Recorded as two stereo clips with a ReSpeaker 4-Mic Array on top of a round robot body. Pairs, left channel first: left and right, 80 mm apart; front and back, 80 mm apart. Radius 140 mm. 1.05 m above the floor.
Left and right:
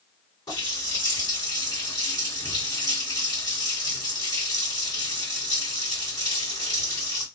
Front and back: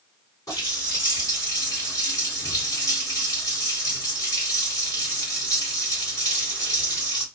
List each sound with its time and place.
0.5 s a running tap: 50° left, 2 m